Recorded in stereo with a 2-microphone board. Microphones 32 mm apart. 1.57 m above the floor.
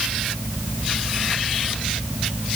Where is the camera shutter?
No camera shutter in this recording.